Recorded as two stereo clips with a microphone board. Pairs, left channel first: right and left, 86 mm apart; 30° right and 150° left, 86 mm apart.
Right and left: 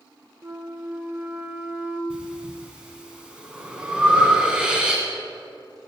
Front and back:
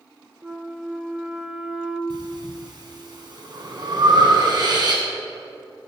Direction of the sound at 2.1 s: 165° left.